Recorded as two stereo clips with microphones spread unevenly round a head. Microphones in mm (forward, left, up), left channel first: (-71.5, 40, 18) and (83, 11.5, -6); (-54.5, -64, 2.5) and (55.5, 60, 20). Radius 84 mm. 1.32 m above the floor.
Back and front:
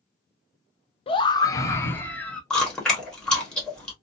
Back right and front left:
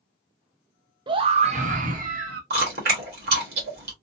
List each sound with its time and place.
1.1 s a scream: 115° left, 0.6 m; by 2.4 s 85° left, 1.1 m
2.5 s chewing: 85° left, 1.3 m